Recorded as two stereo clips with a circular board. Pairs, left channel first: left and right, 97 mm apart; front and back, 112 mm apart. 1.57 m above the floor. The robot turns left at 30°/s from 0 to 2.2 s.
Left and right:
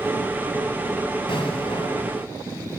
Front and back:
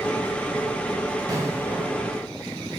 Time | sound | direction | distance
1.3 | an explosion | 120° left | 1.7 m